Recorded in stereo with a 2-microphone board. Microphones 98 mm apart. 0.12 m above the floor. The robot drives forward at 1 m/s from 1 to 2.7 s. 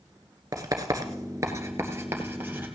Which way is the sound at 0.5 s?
35° right (ahead or behind).